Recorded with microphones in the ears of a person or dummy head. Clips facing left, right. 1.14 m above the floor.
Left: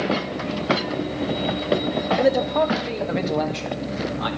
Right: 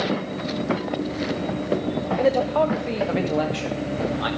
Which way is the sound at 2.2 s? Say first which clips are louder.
Even; 10° left (ahead or behind).